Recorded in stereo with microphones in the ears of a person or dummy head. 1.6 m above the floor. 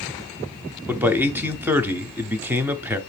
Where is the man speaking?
10° right (ahead or behind), 0.6 m.